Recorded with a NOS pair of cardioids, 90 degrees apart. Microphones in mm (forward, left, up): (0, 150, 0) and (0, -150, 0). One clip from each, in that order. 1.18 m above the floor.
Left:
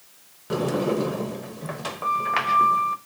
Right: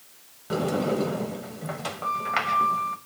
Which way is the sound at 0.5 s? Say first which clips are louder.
Left 2 dB; 10° left.